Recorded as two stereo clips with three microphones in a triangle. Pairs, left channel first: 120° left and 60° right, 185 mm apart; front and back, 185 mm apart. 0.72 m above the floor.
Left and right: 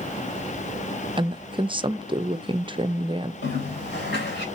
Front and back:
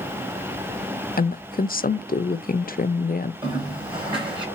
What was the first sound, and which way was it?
A woman speaking, 10° right.